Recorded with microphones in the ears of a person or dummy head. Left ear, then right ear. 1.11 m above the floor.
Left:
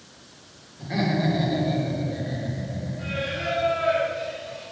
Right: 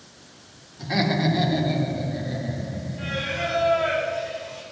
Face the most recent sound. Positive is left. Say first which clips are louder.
# right 2 dB
turn(degrees=-60)  # may be behind; listen again after turning